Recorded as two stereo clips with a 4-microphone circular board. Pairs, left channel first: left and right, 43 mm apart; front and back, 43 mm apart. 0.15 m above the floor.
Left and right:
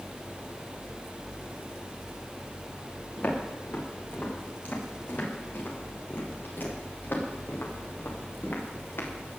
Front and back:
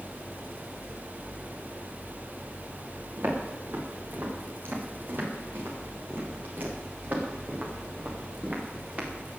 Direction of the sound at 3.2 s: 145° left.